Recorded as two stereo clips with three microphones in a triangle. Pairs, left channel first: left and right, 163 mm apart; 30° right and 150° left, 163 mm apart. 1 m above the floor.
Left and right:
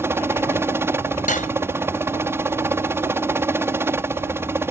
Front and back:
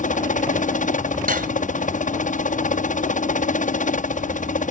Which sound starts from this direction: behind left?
Cutlery clinking, at 1.3 s.